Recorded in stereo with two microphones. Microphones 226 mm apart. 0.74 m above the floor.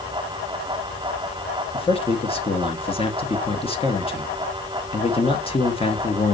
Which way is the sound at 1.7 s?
25° left (ahead or behind).